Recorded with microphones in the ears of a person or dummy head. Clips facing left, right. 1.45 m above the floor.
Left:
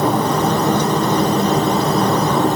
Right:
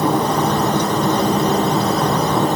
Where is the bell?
No bell in this recording.